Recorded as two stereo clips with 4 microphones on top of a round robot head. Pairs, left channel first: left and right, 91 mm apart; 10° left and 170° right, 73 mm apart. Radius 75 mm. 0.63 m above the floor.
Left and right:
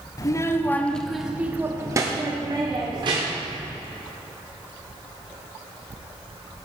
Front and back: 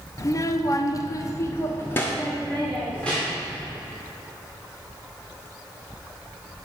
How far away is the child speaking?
About 1.1 m.